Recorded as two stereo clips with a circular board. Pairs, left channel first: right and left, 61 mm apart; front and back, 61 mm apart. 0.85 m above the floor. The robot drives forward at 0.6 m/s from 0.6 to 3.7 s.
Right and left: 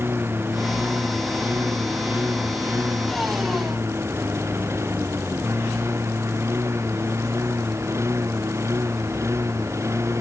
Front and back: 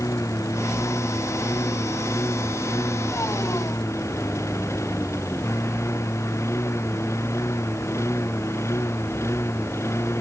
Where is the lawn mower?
35° left; by 10.2 s 45° left.